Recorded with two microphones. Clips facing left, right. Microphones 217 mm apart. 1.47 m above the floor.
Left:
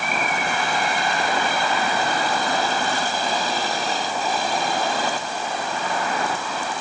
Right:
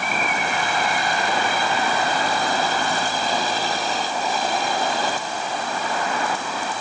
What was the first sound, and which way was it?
Only background noise.